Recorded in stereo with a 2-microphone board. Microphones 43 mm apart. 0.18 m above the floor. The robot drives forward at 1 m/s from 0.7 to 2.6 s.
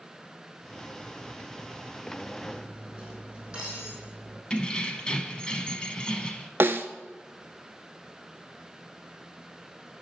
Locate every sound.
2.4 s cutlery clinking: 25° right (ahead or behind), 3.5 m; by 4.4 s 20° right (ahead or behind), 3.5 m
4.5 s keys jangling: 25° left (ahead or behind), 0.8 m
6.6 s a snare drum: 60° right (ahead or behind), 0.6 m